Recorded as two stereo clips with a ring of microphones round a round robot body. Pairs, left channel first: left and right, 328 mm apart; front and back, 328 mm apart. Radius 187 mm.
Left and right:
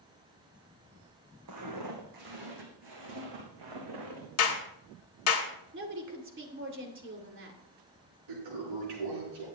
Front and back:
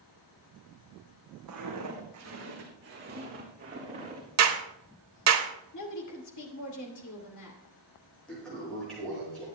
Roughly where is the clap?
Behind left.